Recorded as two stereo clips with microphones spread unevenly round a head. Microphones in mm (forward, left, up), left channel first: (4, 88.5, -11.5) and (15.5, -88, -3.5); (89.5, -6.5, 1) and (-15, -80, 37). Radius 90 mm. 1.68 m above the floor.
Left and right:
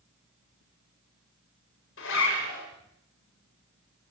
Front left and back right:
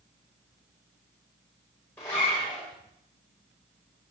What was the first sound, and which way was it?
A zipper, 115° left.